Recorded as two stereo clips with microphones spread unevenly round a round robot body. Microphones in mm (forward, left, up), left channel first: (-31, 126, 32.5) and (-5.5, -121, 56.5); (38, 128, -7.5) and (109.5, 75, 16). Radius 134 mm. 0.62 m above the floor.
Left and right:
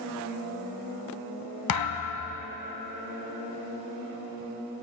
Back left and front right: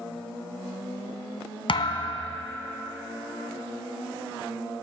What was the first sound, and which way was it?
A thud, 110° left.